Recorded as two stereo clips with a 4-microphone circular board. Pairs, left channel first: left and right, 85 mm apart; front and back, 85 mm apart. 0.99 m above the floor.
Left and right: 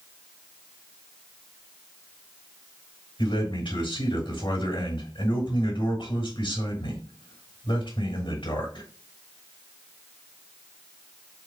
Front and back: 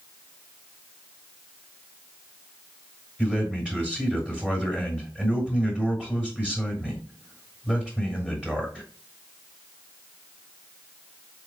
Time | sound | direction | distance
3.2 | a man speaking | 100° left | 3 m